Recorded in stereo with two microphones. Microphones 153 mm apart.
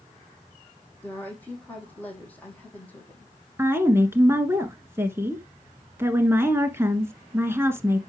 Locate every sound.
1.0 s a woman speaking: 10° left (ahead or behind), 5.5 m
3.6 s a woman speaking: 15° right (ahead or behind), 1.2 m